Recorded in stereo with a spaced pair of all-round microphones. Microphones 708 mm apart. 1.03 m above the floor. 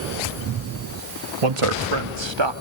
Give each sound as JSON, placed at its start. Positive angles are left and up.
{"t": 1.4, "sound": "a man speaking", "side_deg": -50, "distance_m": 1.8}